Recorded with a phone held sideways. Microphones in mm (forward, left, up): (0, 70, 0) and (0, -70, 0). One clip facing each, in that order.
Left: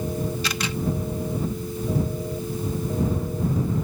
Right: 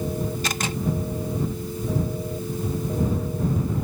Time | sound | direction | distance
0.4 | a camera shutter | 45° right (ahead or behind) | ?